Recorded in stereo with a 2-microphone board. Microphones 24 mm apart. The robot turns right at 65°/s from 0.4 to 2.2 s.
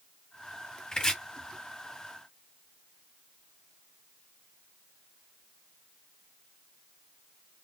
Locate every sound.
0.9 s chopping: 30° left (ahead or behind), 1.7 m; by 1.2 s 15° left (ahead or behind), 1.7 m